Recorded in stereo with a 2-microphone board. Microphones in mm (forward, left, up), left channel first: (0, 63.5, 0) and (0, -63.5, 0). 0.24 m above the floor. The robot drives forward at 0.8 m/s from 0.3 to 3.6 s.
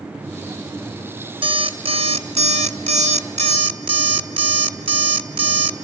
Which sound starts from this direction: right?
An alarm clock, at 1.4 s.